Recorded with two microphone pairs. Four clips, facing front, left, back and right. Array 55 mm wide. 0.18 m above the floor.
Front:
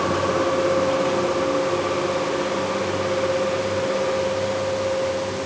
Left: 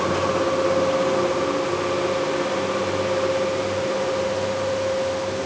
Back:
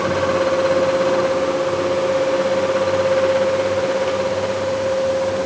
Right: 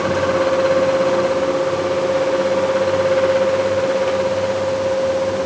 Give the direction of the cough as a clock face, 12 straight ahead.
No cough in this recording.